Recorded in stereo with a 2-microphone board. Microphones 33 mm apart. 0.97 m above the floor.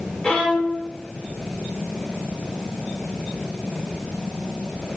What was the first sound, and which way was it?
A violin, 35° left (ahead or behind).